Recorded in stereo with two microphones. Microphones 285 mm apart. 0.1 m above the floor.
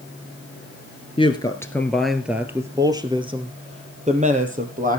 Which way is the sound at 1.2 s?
20° left (ahead or behind).